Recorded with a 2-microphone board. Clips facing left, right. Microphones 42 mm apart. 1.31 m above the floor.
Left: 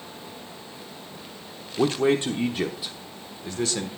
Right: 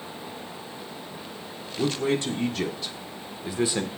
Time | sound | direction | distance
1.8 | a man speaking | 45° left (ahead or behind) | 1.4 m